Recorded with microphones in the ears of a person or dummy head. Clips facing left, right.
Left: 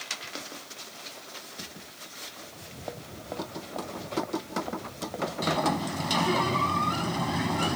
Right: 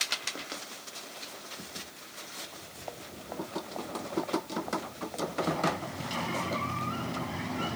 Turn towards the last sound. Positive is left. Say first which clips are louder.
# left 5 dB
turn(degrees=65)  # may be behind; listen again after turning